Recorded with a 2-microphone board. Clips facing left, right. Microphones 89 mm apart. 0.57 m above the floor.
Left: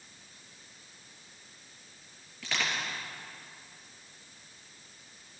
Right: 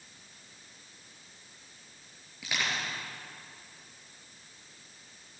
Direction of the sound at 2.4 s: 10° right (ahead or behind).